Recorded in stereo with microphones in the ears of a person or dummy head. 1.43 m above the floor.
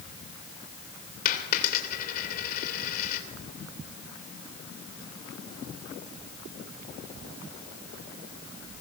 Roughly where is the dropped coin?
Left.